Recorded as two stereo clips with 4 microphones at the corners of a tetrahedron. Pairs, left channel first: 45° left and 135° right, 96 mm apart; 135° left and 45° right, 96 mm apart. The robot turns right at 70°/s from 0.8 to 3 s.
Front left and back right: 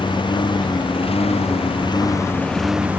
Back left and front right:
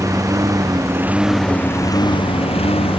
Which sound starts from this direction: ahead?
A lawn mower, at 0.0 s.